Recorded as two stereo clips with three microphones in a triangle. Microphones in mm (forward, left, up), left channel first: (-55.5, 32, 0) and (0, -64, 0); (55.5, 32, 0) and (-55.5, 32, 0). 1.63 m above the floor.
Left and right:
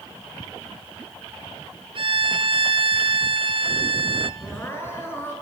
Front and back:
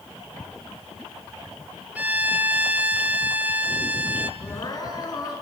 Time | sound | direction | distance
1.9 | a violin | 105° right | 0.7 m
4.4 | crying | 50° left | 4.5 m